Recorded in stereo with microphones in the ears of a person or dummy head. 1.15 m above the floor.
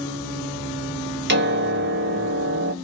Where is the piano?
60° right (ahead or behind), 1.3 m.